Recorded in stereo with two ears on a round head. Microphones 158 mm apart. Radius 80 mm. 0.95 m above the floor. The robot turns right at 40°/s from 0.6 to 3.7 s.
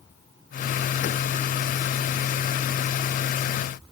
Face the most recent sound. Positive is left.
No sound to turn to.